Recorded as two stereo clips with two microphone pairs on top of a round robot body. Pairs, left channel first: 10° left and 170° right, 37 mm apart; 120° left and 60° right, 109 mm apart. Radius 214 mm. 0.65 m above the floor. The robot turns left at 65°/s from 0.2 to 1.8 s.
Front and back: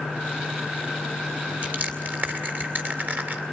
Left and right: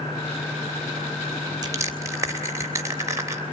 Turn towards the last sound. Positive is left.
turn(degrees=-125)